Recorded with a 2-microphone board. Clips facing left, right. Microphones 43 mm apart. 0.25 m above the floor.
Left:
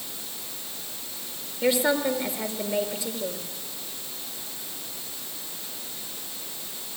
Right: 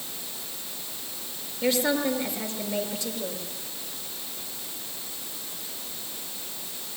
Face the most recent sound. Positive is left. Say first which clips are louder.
# left 2 dB
turn(degrees=10)  # may be behind; listen again after turning